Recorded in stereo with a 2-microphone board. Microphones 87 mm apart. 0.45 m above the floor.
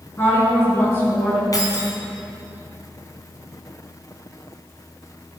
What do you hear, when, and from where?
0.2 s a woman speaking: 30° left (ahead or behind), 6 m
1.5 s keys jangling: 45° left (ahead or behind), 2.5 m